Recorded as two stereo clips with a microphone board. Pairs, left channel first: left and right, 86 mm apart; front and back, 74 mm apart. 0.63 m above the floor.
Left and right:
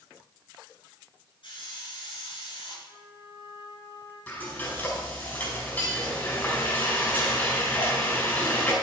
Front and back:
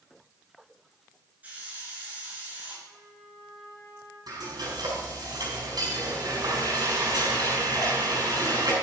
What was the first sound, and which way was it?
A hiss, 110° left.